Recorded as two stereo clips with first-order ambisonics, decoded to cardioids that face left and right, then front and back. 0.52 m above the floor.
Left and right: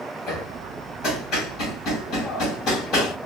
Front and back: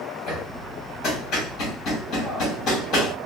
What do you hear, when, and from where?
0.3 s hammering: 45° left, 1.9 m